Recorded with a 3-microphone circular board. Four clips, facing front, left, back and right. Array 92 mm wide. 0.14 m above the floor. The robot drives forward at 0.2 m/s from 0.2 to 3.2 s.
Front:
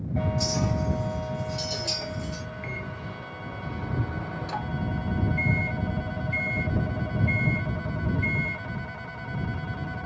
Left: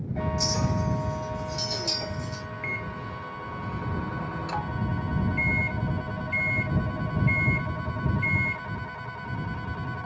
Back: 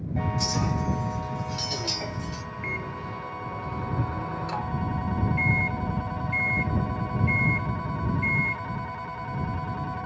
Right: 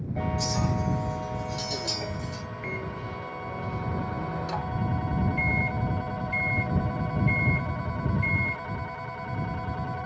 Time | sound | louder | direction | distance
0.4 | a clink | even, even | 165° left | 1.4 m
2.6 | a microwave | right 2 dB, back 3 dB | 105° left | 1.0 m